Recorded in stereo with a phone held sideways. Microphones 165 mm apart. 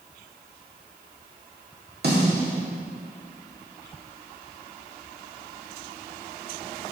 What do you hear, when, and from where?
2.0 s a snare drum: 75° right (ahead or behind), 1.8 m